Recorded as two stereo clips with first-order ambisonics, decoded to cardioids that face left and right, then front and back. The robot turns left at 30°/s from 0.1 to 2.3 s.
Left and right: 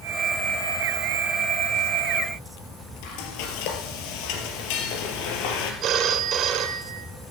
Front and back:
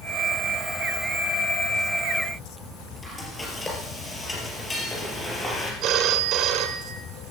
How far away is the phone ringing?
About 1.7 m.